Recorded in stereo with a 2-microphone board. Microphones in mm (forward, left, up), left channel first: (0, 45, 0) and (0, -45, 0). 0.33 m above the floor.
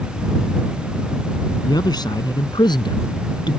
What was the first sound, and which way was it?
A man speaking, 50° left (ahead or behind).